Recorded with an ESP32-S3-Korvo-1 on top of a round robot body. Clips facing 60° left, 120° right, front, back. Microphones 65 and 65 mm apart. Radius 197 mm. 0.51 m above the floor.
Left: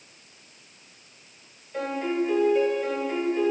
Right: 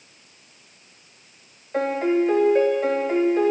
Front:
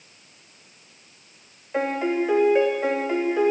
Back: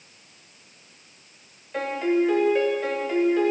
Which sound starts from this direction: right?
A piano, at 1.7 s.